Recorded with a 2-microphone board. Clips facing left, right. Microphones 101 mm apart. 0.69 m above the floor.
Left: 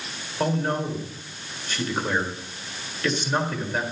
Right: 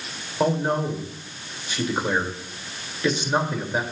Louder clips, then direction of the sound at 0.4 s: Right 3 dB; 15° right (ahead or behind).